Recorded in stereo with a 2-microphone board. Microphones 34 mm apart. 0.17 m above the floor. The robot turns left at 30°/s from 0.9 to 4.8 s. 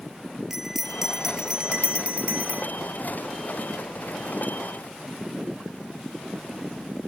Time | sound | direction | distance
0.5 | a bell | 10° right | ?